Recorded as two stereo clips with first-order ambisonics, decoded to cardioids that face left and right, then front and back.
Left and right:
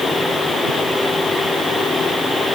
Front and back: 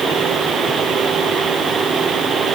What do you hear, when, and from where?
Only background noise.